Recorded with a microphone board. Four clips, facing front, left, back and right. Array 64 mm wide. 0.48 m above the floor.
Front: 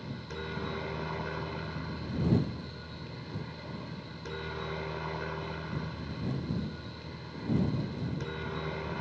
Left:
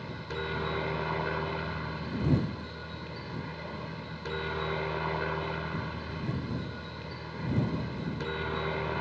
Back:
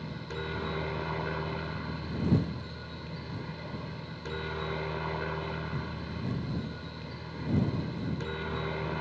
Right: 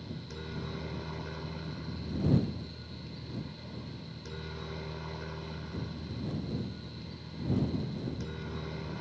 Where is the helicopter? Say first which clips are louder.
Left 7 dB, back 2 dB; 105° left.